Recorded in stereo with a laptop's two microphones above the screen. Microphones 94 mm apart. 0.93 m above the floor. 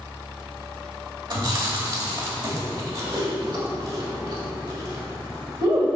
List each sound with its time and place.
1.3 s chewing: 55° right (ahead or behind), 2 m